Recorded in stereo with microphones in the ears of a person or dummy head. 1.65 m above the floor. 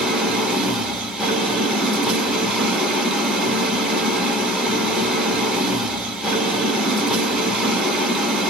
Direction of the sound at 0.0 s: Centre (ahead or behind).